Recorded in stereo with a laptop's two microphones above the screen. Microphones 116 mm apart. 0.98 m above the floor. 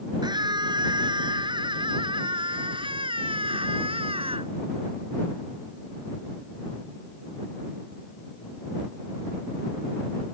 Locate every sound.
0.2 s a scream: 35° right (ahead or behind); by 4.5 s 55° right (ahead or behind)